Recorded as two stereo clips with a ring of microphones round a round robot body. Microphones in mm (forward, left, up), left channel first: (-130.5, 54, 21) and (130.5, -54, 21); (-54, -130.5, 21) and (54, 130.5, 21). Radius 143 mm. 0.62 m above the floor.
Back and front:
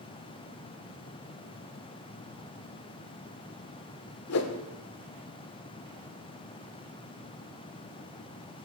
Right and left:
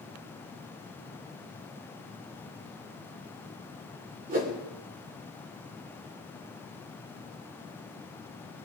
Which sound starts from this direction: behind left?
A whoosh, at 4.3 s.